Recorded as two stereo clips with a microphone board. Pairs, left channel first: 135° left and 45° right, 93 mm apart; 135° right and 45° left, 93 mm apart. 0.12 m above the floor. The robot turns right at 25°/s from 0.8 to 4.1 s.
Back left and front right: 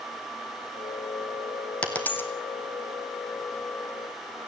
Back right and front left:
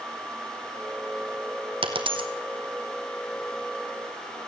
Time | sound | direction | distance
1.8 | a dropped coin | 60° left | 1.8 m